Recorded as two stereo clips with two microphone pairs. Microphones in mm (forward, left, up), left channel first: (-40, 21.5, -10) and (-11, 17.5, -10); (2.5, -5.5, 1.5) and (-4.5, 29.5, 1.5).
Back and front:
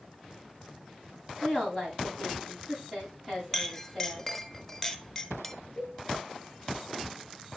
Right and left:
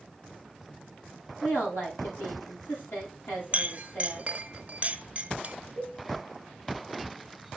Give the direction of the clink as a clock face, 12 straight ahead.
9 o'clock.